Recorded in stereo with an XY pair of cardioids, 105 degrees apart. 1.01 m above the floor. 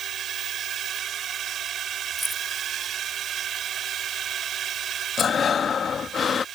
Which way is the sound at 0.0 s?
60° right.